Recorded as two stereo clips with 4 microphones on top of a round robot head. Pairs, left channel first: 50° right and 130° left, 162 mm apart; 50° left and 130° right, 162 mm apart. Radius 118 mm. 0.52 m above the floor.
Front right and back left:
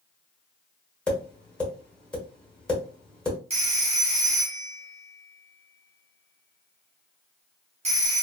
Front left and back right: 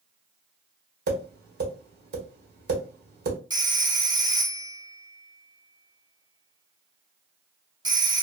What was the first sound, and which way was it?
Tapping, 135° right.